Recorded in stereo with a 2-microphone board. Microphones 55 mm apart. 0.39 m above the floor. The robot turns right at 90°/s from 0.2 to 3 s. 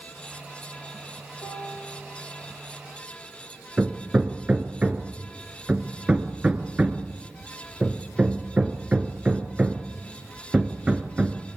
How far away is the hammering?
About 1.7 m.